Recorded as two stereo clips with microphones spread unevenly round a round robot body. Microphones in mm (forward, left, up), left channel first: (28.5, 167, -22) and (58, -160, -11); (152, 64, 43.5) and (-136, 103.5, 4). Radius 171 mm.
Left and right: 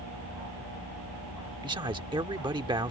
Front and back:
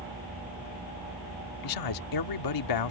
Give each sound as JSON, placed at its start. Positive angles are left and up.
{"t": 1.6, "sound": "a man speaking", "azimuth_deg": -10}